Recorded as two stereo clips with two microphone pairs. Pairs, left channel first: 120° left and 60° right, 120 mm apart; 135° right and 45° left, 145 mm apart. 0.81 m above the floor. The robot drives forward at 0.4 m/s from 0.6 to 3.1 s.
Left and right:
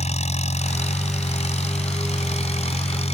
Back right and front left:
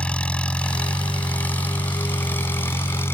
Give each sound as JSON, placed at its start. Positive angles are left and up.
{"t": 0.0, "sound": "an engine running", "azimuth_deg": 140}